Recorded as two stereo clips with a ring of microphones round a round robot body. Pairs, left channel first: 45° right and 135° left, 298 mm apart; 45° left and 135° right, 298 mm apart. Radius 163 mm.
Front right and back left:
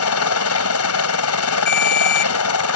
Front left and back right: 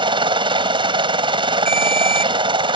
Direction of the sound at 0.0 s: 65° right.